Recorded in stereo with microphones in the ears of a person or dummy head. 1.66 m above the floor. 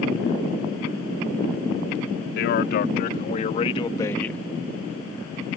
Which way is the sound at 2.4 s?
70° left (ahead or behind).